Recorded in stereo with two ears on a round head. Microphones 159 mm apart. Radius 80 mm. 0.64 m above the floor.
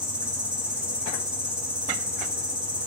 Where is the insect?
5° right (ahead or behind), 0.8 m.